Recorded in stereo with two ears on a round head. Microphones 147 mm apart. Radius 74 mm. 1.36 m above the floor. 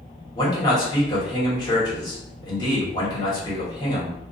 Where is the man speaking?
25° left (ahead or behind), 1.3 m.